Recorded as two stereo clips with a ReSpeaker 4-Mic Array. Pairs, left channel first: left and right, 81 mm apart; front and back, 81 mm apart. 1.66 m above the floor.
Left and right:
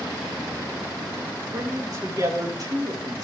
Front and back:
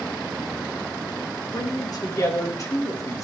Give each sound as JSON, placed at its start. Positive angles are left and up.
{"t": 1.5, "sound": "a man speaking", "azimuth_deg": -40, "distance_m": 4.5}